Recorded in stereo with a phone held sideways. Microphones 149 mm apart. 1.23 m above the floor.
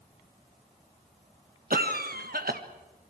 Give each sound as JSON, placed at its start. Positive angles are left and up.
{"t": 1.7, "sound": "a cough", "side_deg": -80, "distance_m": 1.3}